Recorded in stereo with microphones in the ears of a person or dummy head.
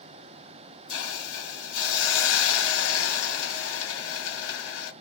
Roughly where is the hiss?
Left.